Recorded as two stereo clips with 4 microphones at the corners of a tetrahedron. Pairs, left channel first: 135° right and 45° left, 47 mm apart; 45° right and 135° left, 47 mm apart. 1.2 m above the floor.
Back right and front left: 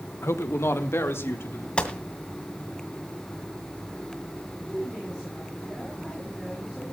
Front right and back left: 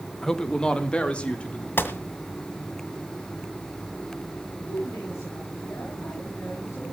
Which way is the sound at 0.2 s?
125° right.